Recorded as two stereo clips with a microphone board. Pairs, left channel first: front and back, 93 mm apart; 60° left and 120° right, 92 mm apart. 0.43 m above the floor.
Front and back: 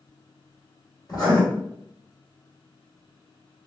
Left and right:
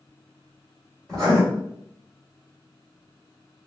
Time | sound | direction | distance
1.1 | writing | 20° right | 1.9 m